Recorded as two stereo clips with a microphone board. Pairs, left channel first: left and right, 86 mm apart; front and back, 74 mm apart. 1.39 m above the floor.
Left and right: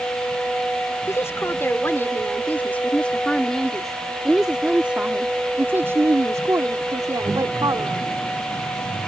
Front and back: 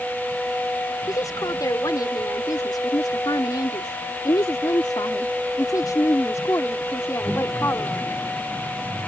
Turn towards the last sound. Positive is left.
turn(degrees=-55)